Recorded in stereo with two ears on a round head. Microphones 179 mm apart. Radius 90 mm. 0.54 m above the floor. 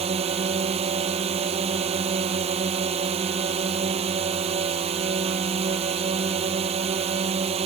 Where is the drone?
30° right (ahead or behind).